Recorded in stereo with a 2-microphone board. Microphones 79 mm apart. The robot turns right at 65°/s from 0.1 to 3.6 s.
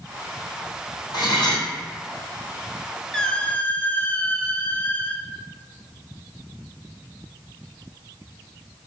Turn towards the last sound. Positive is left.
turn(degrees=50)